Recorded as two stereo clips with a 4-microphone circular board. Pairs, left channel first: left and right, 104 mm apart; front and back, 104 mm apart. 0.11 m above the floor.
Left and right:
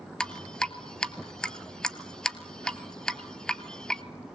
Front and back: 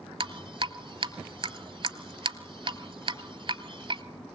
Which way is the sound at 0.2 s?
170° left.